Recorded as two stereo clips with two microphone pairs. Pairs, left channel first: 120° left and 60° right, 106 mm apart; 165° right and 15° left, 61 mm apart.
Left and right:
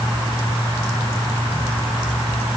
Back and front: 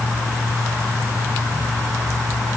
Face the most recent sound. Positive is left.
No sound to turn to.